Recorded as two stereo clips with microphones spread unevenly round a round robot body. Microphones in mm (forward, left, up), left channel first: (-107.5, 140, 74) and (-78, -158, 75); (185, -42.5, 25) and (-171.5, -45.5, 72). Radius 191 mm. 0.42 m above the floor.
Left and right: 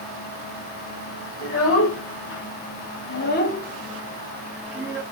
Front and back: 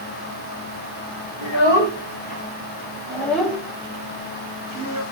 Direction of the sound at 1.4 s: 55° left.